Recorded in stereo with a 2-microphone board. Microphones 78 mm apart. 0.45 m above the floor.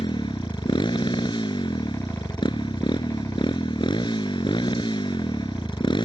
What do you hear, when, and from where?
0.0 s a motorcycle: 85° left